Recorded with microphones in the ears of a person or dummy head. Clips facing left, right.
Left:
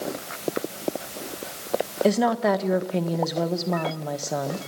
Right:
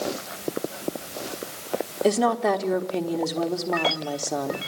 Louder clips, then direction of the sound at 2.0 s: Even; 5° left (ahead or behind).